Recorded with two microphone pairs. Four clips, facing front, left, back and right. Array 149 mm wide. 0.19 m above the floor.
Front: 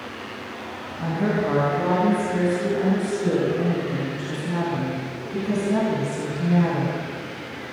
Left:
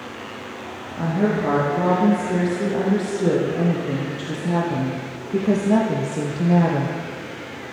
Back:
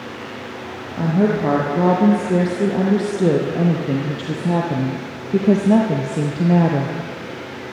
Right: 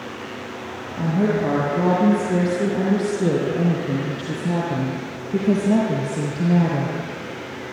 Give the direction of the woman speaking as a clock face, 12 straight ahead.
6 o'clock.